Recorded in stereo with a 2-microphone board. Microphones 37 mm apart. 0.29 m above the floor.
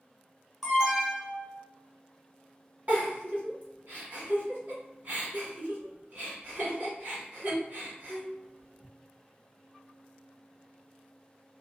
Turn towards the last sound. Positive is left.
turn(degrees=-45)  # may be behind; listen again after turning